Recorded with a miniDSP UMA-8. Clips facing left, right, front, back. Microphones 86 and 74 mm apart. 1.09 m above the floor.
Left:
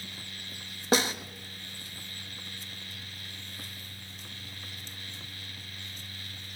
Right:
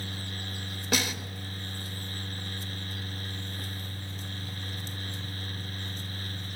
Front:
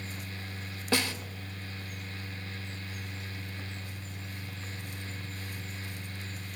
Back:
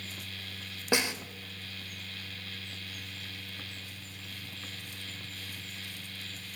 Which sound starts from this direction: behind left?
A snare drum, at 0.9 s.